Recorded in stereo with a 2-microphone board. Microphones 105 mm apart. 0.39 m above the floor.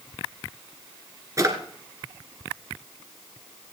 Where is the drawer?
30° right (ahead or behind), 1.9 m.